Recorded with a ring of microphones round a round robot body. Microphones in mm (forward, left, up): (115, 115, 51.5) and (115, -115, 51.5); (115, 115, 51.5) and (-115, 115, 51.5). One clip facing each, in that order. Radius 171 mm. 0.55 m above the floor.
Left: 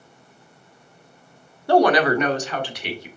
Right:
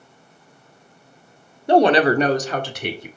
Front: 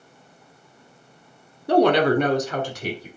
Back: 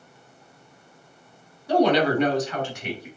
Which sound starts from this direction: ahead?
A woman speaking, at 1.7 s.